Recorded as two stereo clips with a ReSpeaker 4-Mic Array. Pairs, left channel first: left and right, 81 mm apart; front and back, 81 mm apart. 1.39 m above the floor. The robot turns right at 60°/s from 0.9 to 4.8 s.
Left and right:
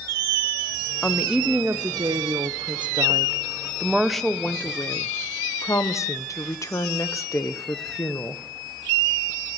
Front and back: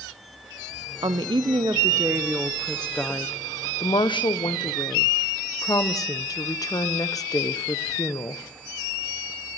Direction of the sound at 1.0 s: 175° left.